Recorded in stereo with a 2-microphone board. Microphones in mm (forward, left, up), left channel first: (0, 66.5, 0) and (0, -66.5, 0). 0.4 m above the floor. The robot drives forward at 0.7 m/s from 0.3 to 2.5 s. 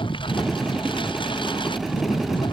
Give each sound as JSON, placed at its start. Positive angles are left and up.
{"t": 0.0, "sound": "a lawn mower", "side_deg": 40}